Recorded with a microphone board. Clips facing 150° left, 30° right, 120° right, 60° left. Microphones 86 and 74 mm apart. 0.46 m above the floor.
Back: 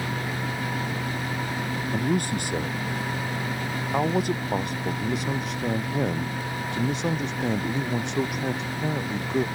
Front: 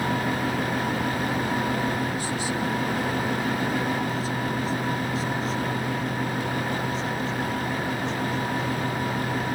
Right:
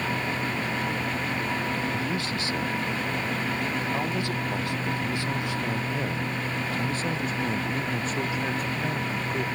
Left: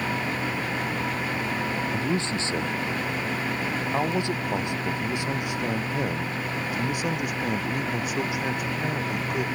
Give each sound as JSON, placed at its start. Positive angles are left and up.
{"t": 1.9, "sound": "a man speaking", "azimuth_deg": 120}